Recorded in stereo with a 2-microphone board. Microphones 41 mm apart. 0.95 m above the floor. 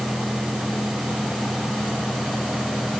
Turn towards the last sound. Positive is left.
No sound to turn to.